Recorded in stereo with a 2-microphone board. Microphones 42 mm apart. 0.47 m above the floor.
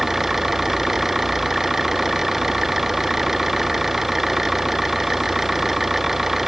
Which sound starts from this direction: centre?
An engine running, at 0.0 s.